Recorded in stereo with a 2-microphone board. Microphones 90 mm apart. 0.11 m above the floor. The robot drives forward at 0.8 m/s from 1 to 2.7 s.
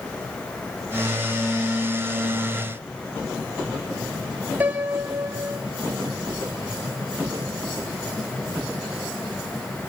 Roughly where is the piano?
Centre.